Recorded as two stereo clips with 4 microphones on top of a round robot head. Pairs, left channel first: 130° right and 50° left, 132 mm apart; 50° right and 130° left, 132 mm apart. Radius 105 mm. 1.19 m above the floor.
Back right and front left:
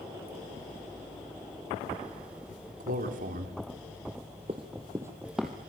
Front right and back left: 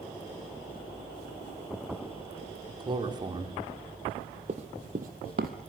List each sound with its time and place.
2.8 s a man speaking: 75° left, 3 m
4.5 s running footsteps: 95° left, 1.7 m; by 5.5 s 140° left, 1.7 m